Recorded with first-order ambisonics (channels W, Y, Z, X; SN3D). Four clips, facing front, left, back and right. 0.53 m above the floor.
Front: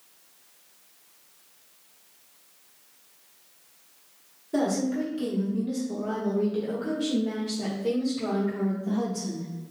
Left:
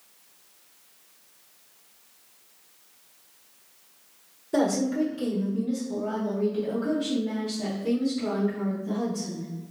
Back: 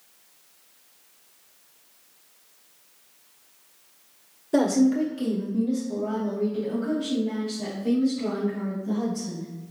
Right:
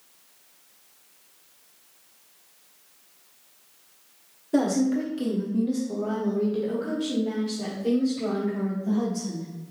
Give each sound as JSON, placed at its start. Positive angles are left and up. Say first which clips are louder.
{"t": 4.5, "sound": "a woman speaking", "louder": "right 1 dB, back 5 dB", "azimuth_deg": 175, "distance_m": 1.0}